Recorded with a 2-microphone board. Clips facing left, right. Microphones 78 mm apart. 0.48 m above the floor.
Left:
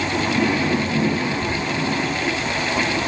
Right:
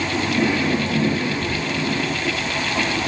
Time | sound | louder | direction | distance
1.4 | whispering | left 1 dB | 50° left (ahead or behind) | 2 m